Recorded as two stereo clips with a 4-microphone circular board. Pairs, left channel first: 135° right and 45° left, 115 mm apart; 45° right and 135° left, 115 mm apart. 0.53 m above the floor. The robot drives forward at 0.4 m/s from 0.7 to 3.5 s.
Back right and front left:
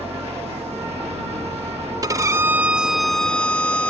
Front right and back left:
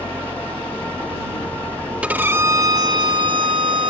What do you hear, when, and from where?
0.0 s an engine running: 30° left
2.0 s a violin: 65° left; by 3.9 s 150° left